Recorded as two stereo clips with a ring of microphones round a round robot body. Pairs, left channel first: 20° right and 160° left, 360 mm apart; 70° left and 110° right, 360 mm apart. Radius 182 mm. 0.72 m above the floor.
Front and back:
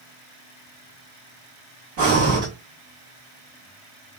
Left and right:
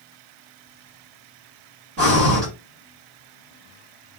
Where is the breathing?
165° right, 2.5 m.